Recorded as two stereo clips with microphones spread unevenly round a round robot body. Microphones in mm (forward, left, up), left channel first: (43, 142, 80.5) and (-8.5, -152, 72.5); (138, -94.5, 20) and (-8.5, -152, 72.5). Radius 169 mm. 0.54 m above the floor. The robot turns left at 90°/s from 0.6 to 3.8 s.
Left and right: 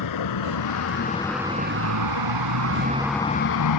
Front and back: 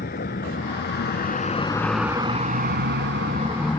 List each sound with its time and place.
0.0 s a vehicle: 70° left; by 3.8 s 100° left